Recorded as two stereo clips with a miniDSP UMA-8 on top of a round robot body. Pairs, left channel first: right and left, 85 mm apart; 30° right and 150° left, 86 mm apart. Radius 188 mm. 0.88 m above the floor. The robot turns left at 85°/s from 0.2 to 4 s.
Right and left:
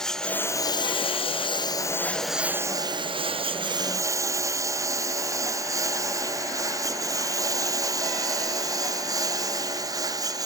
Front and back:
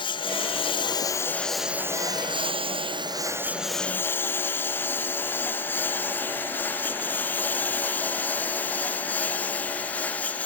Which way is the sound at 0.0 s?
5° right.